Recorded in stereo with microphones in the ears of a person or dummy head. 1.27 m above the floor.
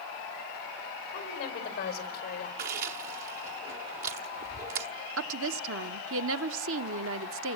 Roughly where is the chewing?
Right.